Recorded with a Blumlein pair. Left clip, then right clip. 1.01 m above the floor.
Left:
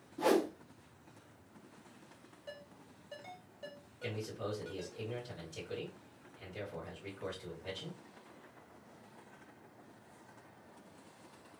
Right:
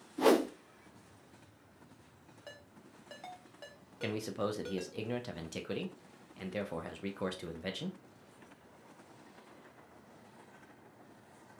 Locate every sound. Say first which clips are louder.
0.2 s a whoosh: right 3 dB; 15° right, 0.6 m
2.5 s a ringtone: left 2 dB; 45° right, 1.4 m
4.0 s a man speaking: right 5 dB; 35° right, 1.2 m